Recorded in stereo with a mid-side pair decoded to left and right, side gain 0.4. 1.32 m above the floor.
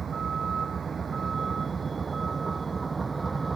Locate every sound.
0.0 s a vehicle: 45° right; by 3.6 s 30° right